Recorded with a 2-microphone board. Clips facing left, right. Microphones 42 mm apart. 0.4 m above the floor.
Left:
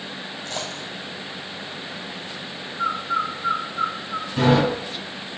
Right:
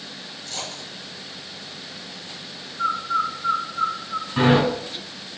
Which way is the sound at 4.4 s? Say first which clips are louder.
Right 1 dB; 40° right (ahead or behind).